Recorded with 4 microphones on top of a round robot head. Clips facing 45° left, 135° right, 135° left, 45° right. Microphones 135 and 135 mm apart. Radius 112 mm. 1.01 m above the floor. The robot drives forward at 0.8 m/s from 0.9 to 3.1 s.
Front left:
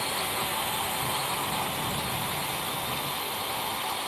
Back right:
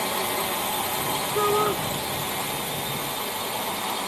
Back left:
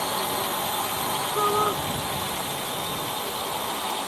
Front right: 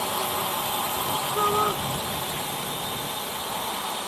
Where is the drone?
125° right; by 4.1 s 130° right.